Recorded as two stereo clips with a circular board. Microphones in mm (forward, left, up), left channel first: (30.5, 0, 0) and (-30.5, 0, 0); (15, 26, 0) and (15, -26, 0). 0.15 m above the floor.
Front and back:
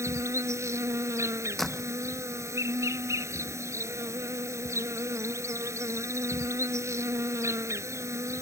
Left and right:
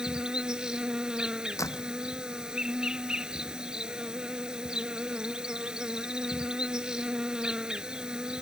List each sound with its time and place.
0.0 s an insect: 160° right
1.6 s a door slam: 85° left